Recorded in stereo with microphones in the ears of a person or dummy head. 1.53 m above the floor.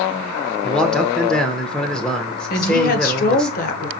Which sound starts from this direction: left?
A woman speaking, at 2.5 s.